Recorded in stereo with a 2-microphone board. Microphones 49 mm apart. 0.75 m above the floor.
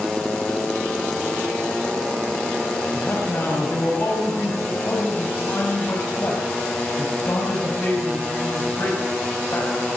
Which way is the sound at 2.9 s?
45° left (ahead or behind).